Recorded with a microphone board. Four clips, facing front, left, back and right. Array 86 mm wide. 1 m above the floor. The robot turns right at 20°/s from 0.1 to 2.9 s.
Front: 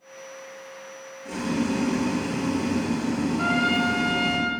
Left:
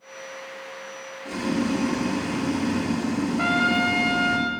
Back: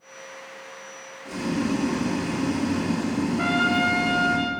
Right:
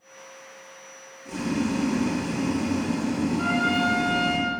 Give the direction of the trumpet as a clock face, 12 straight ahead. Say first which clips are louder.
Left 3 dB, back 2 dB; 8 o'clock.